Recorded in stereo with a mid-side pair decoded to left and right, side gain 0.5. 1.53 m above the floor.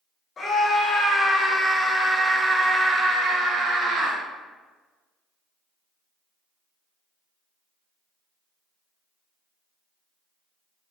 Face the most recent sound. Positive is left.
turn(degrees=-65)